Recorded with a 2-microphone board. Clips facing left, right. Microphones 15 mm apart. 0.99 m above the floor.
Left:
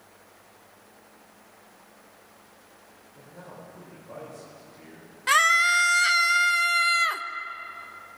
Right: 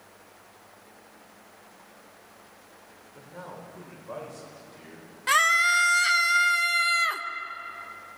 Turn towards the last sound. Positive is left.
turn(degrees=5)  # may be behind; listen again after turning